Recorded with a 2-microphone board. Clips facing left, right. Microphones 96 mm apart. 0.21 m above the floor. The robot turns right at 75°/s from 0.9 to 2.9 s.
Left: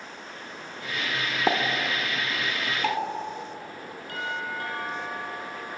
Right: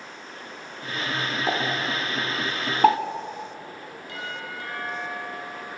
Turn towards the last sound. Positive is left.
turn(degrees=50)  # may be behind; listen again after turning